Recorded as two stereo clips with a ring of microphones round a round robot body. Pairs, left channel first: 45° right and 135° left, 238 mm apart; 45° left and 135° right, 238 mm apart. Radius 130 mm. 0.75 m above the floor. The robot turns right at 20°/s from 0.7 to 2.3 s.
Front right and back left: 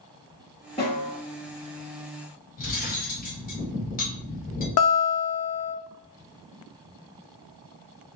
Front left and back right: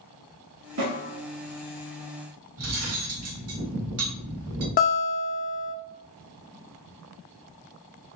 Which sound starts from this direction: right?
Cutlery clinking, at 2.6 s.